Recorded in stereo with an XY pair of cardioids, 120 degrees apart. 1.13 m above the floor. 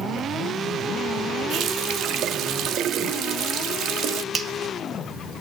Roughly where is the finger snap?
Ahead right.